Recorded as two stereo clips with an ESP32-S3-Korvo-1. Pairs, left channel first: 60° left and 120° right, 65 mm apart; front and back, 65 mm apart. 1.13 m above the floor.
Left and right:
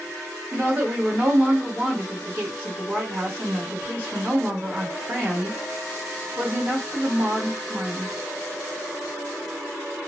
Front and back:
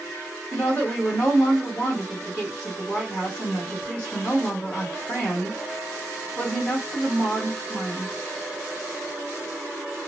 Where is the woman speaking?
65° right, 1.2 m.